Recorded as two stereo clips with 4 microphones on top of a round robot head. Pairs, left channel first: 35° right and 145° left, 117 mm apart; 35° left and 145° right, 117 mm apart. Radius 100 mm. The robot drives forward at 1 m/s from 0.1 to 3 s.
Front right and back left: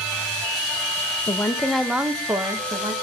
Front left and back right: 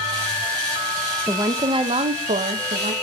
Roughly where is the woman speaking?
Right.